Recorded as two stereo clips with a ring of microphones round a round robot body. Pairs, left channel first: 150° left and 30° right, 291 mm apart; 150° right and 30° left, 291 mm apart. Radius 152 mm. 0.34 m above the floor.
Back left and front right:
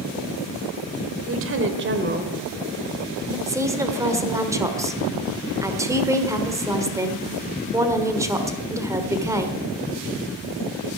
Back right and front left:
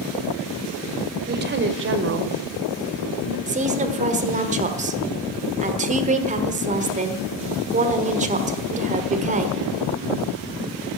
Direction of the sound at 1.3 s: 15° right.